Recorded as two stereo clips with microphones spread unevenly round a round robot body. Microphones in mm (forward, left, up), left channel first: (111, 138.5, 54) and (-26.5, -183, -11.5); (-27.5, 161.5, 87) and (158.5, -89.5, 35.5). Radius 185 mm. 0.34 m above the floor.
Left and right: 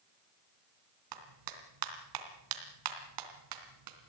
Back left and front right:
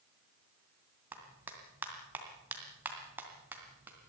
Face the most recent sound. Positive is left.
turn(degrees=-135)